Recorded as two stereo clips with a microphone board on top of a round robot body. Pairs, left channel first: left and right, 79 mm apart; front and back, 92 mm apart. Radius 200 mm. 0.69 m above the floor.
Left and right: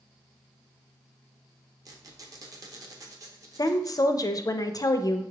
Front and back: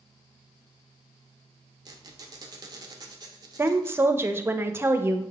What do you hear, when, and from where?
1.9 s a squeak: 135° right, 0.8 m
3.6 s a woman speaking: 120° left, 0.7 m